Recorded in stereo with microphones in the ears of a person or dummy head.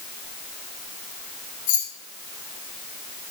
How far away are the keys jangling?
About 1.7 m.